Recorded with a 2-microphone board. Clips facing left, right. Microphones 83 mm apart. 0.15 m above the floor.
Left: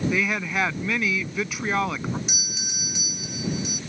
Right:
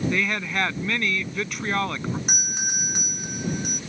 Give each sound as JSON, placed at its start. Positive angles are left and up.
{"t": 0.1, "sound": "a woman speaking", "side_deg": 5}
{"t": 2.3, "sound": "a doorbell", "side_deg": -55}